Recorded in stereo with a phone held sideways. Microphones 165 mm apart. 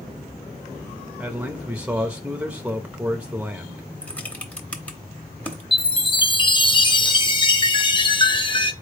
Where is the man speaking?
10° right (ahead or behind), 0.6 m.